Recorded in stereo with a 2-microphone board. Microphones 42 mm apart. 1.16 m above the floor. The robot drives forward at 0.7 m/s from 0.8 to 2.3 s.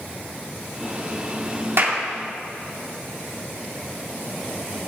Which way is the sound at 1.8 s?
60° right (ahead or behind).